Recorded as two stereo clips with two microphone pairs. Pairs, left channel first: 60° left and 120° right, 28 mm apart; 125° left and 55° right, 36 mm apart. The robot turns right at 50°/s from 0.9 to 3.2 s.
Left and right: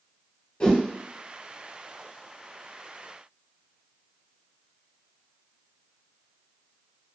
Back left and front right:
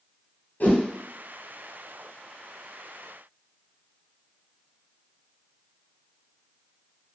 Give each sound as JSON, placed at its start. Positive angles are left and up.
{"t": 0.6, "sound": "a whoosh", "azimuth_deg": 105, "distance_m": 1.1}